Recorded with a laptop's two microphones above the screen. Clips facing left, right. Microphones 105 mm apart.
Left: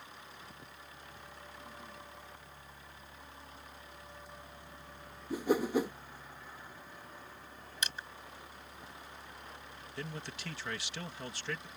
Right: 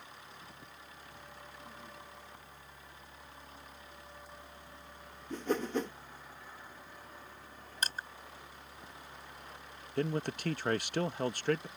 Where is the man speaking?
50° right (ahead or behind).